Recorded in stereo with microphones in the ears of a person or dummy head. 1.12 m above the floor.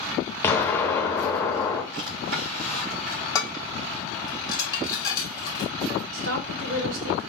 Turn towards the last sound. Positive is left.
turn(degrees=-75)  # may be behind; listen again after turning